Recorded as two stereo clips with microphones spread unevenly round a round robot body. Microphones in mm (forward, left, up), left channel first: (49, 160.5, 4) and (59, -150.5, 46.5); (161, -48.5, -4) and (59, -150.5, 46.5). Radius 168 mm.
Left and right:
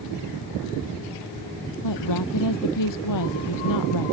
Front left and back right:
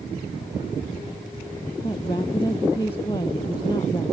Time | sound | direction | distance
1.8 | a woman speaking | 125° left | ?